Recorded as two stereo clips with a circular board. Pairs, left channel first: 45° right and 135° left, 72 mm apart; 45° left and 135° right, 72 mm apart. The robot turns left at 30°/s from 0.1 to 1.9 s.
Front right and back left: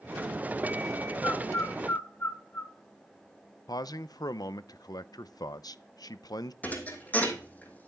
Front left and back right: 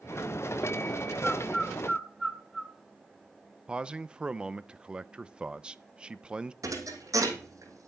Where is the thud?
110° right, 3 m.